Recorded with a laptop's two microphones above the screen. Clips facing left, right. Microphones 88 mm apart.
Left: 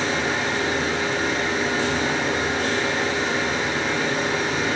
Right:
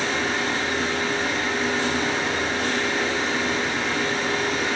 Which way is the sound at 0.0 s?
10° left (ahead or behind).